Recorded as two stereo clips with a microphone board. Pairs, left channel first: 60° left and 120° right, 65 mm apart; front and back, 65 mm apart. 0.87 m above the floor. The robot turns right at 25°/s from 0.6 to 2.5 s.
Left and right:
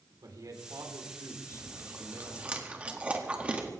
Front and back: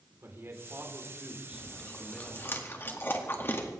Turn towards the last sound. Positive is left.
turn(degrees=-50)